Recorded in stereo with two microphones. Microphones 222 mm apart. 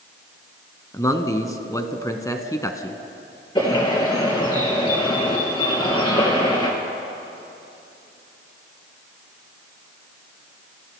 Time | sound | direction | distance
0.9 | a man speaking | 15° left (ahead or behind) | 1.0 m
3.5 | a bird | 20° left (ahead or behind) | 3 m